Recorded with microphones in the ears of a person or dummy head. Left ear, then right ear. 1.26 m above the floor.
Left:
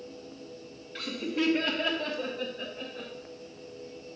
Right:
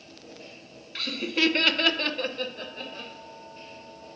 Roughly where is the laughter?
Right.